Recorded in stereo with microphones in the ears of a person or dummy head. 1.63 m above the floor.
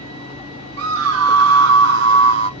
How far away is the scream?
About 0.7 m.